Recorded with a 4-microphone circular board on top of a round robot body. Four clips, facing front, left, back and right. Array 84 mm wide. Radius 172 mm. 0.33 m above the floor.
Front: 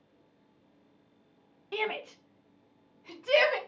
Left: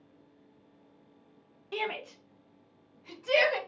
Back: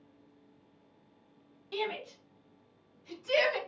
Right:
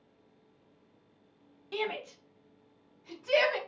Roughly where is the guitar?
No guitar in this recording.